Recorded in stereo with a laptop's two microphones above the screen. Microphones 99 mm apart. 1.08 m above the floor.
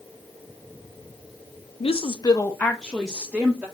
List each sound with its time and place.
1.8 s a woman speaking: 75° left (ahead or behind), 0.7 m; by 3.7 s 10° right (ahead or behind), 1.7 m